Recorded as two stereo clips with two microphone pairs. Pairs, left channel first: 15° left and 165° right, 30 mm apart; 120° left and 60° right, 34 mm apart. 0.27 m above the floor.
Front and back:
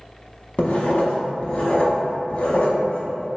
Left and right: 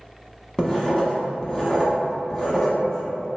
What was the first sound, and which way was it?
Writing, 55° left.